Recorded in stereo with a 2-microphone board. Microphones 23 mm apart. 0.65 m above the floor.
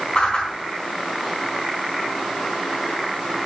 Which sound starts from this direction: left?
A whoosh, at 0.1 s.